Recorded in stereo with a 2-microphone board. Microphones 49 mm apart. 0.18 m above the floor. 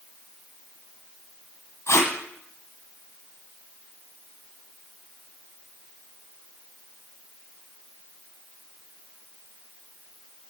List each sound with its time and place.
1.9 s tape being pulled: 70° left (ahead or behind), 2.0 m